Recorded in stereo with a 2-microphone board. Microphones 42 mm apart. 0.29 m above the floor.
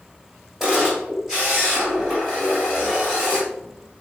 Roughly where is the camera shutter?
Centre.